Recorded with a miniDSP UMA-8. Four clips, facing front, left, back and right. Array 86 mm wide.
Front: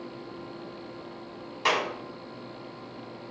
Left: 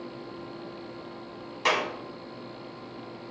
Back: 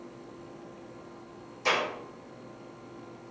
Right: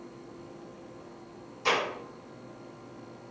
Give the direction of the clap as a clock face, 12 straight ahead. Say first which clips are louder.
Left 2 dB, front 2 dB; 10 o'clock.